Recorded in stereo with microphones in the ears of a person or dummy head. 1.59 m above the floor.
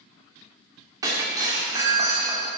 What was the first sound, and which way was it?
Breaking glass, 15° right (ahead or behind).